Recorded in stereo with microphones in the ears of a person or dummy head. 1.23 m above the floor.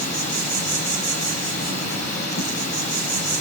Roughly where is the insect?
Left.